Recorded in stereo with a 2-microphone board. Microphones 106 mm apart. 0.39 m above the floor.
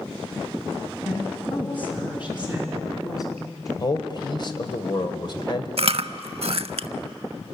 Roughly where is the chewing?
Right.